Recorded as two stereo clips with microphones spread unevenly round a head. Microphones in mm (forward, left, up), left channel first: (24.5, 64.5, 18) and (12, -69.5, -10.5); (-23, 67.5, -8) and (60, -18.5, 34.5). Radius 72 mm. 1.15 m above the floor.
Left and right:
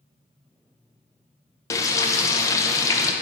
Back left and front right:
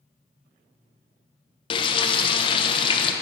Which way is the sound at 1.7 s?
160° left.